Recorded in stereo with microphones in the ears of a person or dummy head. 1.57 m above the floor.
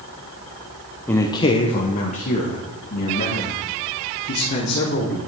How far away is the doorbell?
I don't hear a doorbell.